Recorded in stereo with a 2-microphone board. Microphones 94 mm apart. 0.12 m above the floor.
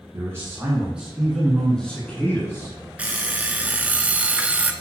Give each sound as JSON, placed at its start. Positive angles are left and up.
{"t": 0.1, "sound": "a man speaking", "side_deg": -30, "distance_m": 1.8}
{"t": 3.0, "sound": "an alarm clock", "side_deg": -15, "distance_m": 0.5}